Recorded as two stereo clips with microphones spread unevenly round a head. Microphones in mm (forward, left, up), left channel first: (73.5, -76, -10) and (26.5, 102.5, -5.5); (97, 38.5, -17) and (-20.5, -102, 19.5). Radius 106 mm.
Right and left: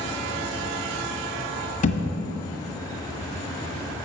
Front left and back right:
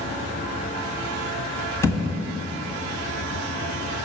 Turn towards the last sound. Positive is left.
turn(degrees=-30)